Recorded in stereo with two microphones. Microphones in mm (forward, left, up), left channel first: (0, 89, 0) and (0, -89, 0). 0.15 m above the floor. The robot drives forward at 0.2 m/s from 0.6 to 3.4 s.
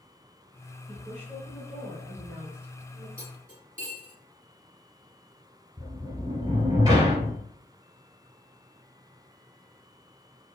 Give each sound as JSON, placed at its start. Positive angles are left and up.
{"t": 0.9, "sound": "a woman speaking", "side_deg": -10, "distance_m": 1.3}
{"t": 3.2, "sound": "cutlery clinking", "side_deg": -50, "distance_m": 1.7}
{"t": 5.8, "sound": "a sliding door", "side_deg": -20, "distance_m": 0.9}